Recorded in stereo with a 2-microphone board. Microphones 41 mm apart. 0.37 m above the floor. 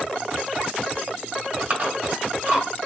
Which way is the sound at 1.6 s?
40° right (ahead or behind).